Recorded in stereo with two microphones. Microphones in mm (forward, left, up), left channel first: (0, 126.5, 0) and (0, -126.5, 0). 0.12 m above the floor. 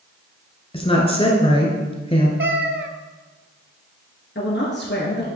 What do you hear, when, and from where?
0.7 s a woman speaking: 20° left (ahead or behind), 1.3 m
2.4 s a cat meowing: 50° right (ahead or behind), 0.6 m
4.3 s a woman speaking: 45° left (ahead or behind), 1.6 m